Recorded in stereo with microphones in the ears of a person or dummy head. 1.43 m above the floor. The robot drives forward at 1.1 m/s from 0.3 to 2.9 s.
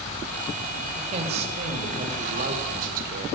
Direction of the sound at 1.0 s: 35° right (ahead or behind).